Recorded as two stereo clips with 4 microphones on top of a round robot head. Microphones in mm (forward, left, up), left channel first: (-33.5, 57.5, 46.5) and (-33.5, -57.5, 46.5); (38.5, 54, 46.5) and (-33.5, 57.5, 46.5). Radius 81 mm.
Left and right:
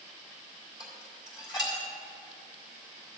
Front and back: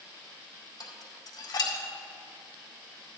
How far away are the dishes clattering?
About 2.0 m.